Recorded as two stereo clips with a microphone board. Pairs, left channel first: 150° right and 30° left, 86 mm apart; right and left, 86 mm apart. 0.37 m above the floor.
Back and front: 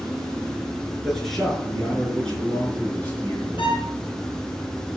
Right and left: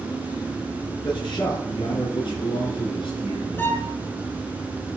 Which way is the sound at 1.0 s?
60° right.